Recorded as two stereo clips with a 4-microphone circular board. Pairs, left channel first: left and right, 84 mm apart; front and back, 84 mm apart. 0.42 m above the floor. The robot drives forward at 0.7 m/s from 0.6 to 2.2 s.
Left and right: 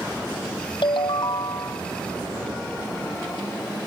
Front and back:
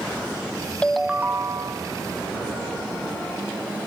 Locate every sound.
0.8 s a ringtone: 75° left, 0.5 m; by 1.9 s 140° left, 0.8 m